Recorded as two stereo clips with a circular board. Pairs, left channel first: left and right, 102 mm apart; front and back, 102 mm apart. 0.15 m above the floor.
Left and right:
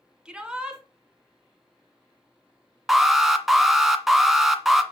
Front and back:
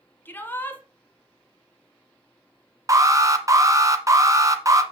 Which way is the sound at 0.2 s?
20° right.